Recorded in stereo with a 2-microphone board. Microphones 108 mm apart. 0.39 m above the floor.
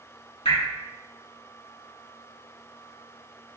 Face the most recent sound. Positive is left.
turn(degrees=80)